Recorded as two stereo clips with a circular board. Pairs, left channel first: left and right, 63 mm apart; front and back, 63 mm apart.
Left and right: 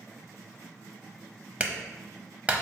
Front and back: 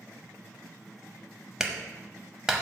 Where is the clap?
120° right, 0.8 m.